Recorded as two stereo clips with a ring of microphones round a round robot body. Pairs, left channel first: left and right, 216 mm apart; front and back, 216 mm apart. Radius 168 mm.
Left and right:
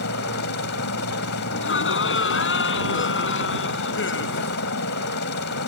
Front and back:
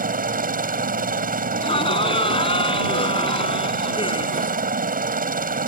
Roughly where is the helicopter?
Behind left.